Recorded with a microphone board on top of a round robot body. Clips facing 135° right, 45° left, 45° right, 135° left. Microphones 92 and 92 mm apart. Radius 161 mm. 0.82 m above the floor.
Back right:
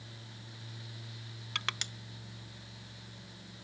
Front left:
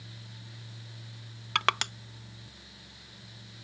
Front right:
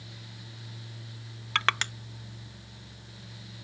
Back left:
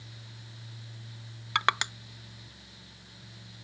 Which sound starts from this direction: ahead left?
Crushing, at 1.6 s.